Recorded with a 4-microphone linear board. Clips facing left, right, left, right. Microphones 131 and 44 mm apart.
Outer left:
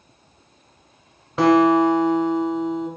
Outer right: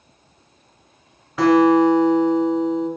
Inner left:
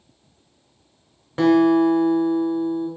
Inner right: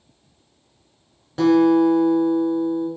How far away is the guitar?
About 1.3 m.